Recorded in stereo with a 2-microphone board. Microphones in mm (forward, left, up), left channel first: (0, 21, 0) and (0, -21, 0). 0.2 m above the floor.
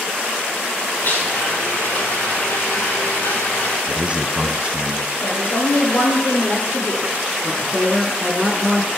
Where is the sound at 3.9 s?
30° right (ahead or behind), 1.4 m.